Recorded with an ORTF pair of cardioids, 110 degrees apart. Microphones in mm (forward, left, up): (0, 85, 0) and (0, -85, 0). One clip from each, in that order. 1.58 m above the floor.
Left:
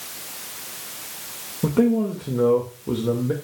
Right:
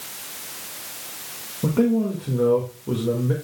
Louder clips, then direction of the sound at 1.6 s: Left 1 dB; 10° left.